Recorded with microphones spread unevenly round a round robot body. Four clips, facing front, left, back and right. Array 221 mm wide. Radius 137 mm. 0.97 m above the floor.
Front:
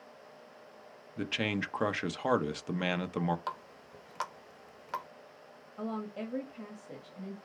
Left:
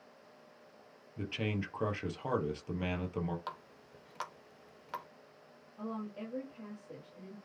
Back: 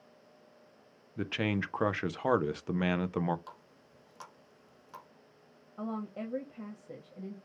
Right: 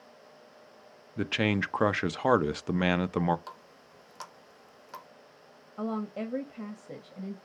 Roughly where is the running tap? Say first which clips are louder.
Left 2 dB, front 11 dB; ahead.